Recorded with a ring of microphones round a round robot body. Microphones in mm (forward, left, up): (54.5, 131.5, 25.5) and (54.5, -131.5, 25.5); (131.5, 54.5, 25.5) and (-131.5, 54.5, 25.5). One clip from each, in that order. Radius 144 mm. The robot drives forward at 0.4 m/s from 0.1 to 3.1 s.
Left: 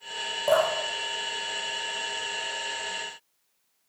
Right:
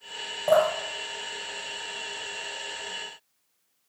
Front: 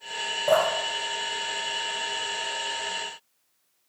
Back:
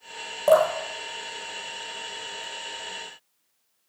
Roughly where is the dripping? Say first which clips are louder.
Right 2 dB, back 4 dB; behind.